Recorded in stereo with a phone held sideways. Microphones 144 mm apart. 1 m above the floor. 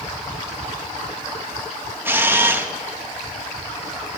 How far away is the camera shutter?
About 1.1 m.